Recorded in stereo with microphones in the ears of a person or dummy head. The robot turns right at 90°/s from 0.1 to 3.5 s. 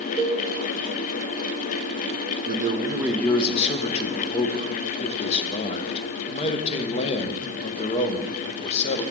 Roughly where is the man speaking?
Ahead right.